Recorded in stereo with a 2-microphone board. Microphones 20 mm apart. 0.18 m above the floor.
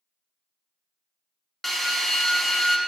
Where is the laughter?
I don't hear laughter.